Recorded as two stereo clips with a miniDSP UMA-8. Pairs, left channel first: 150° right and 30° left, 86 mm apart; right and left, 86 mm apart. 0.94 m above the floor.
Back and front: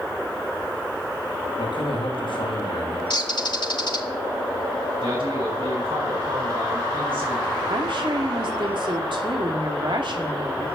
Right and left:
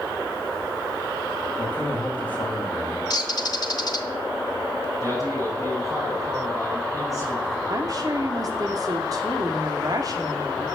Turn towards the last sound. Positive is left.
turn(degrees=50)